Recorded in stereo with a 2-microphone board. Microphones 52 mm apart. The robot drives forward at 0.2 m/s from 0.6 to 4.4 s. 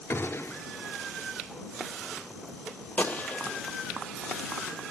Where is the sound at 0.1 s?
50° left (ahead or behind), 0.5 m; by 0.7 s 55° left (ahead or behind), 0.5 m.